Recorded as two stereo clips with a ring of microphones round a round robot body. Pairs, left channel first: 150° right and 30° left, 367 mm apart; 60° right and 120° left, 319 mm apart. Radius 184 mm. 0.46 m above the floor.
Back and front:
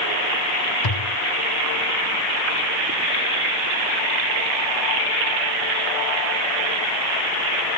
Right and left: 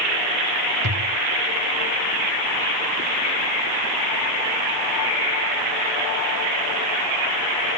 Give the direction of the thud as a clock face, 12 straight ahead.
6 o'clock.